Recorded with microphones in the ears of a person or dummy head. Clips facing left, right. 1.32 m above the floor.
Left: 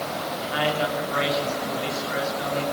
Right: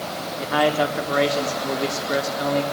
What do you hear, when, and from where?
0.4 s a man speaking: 55° right (ahead or behind), 3.5 m